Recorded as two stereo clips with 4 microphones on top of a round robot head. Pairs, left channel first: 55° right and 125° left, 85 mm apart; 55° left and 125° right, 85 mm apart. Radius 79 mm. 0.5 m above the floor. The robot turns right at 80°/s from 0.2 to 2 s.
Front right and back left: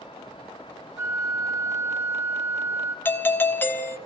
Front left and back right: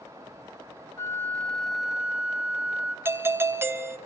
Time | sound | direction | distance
1.0 | a flute | 80° left | 1.6 m
3.0 | a doorbell | 95° right | 1.2 m